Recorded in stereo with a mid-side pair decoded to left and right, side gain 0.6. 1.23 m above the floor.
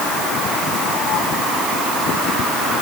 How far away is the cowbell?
I don't hear a cowbell.